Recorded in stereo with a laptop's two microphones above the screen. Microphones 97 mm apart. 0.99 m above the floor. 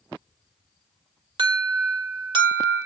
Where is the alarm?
55° right (ahead or behind), 2.5 m.